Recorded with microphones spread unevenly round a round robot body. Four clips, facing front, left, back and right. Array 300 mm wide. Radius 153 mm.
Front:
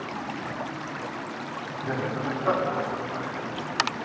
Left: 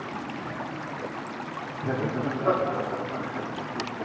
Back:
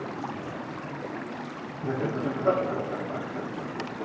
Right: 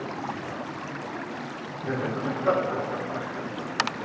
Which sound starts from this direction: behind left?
Laughter, at 1.8 s.